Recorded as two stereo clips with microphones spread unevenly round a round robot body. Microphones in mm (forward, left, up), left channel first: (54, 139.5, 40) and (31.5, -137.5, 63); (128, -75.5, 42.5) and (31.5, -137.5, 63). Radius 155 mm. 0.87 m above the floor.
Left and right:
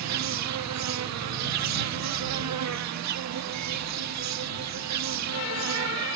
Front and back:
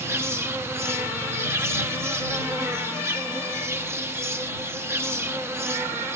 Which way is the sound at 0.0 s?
75° right.